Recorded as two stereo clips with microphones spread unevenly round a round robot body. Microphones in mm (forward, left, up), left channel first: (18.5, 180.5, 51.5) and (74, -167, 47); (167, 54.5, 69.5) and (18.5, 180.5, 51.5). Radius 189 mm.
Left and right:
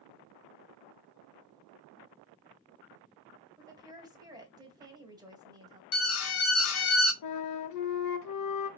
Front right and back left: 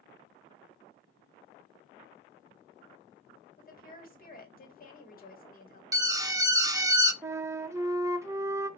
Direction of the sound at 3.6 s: 5° right.